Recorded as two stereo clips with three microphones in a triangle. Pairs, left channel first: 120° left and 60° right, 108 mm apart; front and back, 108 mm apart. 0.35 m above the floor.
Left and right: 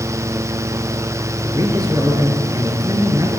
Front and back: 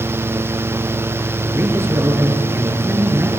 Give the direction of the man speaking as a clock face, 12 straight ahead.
4 o'clock.